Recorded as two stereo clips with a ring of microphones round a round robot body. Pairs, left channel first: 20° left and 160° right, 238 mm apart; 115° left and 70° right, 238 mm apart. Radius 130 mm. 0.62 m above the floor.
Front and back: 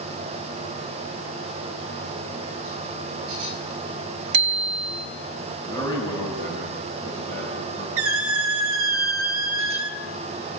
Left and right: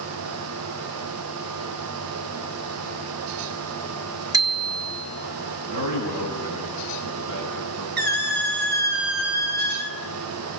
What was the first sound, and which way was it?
A bicycle bell, 145° right.